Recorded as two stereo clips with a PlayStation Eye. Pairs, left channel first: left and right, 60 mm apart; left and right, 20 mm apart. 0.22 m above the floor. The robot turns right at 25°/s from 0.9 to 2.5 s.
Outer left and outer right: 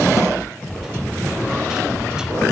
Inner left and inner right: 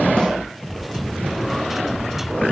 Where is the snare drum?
60° left (ahead or behind), 5.5 m.